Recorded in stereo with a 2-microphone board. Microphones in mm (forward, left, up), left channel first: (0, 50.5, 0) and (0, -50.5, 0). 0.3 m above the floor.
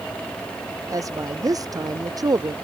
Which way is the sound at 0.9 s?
35° right (ahead or behind).